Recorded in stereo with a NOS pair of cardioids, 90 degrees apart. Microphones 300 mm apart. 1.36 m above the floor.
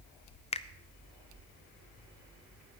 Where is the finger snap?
20° left, 0.5 m.